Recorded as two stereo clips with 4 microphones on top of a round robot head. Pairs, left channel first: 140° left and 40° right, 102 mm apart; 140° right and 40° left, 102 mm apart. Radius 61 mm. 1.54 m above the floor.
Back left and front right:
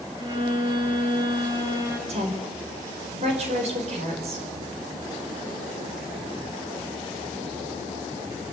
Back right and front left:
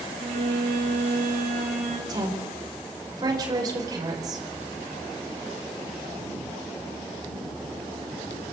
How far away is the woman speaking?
About 5.5 m.